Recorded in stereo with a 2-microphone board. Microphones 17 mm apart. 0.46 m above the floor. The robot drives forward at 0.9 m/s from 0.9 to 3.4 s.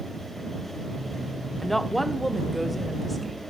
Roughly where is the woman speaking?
Centre.